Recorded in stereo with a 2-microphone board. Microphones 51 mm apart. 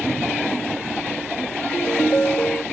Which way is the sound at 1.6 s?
35° left (ahead or behind).